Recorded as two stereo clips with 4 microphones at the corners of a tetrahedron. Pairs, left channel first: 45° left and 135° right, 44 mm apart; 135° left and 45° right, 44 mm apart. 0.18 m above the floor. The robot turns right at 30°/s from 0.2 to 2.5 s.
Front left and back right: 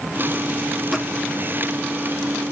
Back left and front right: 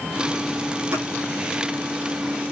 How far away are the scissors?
About 9 m.